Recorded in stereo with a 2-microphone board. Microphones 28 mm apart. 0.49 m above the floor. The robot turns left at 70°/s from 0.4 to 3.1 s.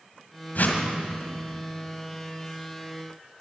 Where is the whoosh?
70° left (ahead or behind), 1.9 m; by 0.8 s 75° left (ahead or behind), 1.9 m.